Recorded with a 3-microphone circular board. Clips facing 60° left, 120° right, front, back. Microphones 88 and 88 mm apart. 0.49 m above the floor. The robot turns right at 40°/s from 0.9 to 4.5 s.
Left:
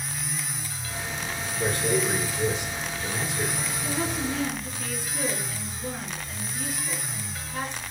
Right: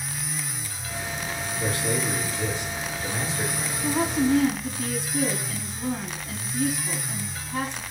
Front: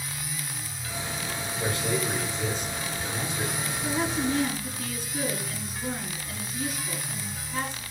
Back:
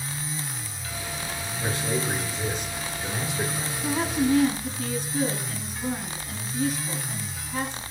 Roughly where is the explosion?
I don't hear an explosion.